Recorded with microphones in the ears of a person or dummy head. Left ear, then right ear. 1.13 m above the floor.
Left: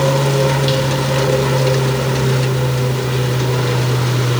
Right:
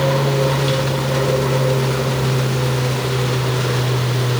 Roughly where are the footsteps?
I don't hear footsteps.